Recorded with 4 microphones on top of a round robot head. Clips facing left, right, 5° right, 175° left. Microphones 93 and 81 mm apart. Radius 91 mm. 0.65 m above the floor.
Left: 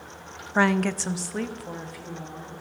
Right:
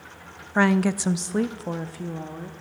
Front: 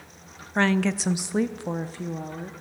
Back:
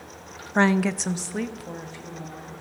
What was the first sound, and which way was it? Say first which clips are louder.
A woman speaking: right 2 dB, back 2 dB; 170° left.